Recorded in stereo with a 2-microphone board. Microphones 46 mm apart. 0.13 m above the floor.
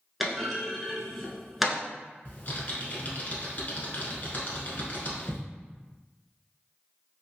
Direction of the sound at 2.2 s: 40° left (ahead or behind).